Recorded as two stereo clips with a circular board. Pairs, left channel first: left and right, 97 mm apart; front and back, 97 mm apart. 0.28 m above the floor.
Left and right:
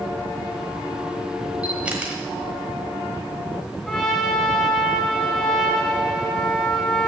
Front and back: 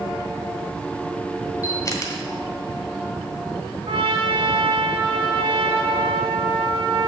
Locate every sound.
1.6 s a camera shutter: 20° right, 1.3 m
3.9 s a trumpet: 175° left, 1.3 m